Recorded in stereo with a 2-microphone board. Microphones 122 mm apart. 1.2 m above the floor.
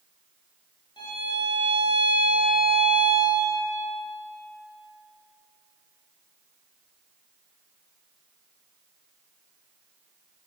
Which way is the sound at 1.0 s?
35° left (ahead or behind).